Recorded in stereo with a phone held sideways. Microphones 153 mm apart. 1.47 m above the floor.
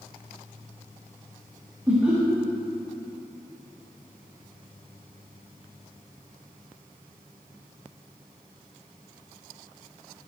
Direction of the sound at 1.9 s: 15° right (ahead or behind).